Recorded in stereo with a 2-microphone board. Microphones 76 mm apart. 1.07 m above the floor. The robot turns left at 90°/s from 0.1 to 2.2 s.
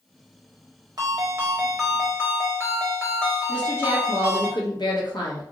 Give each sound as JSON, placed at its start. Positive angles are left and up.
{"t": 1.0, "sound": "a ringtone", "azimuth_deg": -110, "distance_m": 1.0}
{"t": 3.5, "sound": "a woman speaking", "side_deg": 70, "distance_m": 0.9}